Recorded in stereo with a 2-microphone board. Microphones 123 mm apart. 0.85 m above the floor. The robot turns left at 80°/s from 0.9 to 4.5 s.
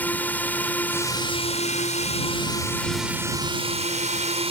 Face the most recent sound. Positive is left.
turn(degrees=-120)